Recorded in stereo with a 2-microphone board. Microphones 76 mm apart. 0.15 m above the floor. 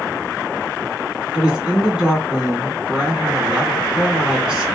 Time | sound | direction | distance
1.3 | a woman speaking | 10° right (ahead or behind) | 1.2 m